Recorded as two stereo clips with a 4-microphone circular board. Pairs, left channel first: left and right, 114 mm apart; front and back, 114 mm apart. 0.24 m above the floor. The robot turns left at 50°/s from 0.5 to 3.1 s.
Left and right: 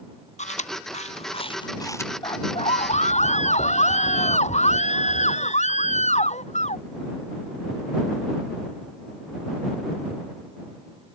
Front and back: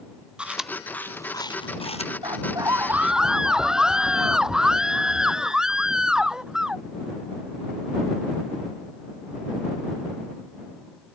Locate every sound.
0.4 s chewing: 100° left; by 2.1 s 20° left
2.2 s a scream: 140° left; by 6.8 s 95° left